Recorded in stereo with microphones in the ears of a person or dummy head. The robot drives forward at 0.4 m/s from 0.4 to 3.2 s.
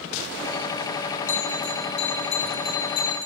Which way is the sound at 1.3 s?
65° left (ahead or behind).